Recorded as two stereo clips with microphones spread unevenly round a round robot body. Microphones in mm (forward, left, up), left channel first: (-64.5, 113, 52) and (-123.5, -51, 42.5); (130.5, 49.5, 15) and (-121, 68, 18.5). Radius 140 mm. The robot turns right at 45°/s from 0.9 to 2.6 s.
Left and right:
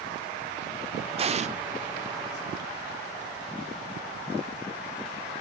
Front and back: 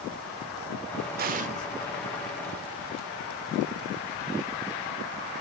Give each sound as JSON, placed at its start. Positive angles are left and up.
{"t": 1.2, "sound": "an explosion", "azimuth_deg": -145, "distance_m": 0.6}